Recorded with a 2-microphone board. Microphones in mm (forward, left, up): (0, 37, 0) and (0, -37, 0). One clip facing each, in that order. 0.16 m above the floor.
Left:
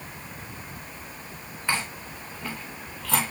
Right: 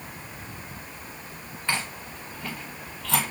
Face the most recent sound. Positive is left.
turn(degrees=5)  # may be behind; listen again after turning